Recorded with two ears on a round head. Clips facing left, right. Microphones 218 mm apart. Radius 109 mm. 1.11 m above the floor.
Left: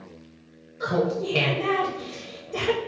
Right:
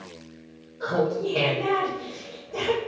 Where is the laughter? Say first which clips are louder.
Even; 35° left (ahead or behind), 0.8 m.